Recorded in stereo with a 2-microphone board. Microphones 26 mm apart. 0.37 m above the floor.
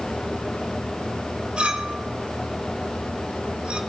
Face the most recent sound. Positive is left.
turn(degrees=-45)  # may be behind; listen again after turning